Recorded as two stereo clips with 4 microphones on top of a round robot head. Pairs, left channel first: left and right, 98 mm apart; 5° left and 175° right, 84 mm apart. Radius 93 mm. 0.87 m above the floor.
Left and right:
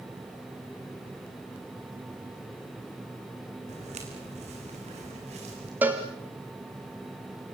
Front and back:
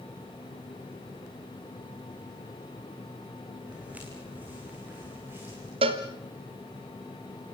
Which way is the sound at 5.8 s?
165° right.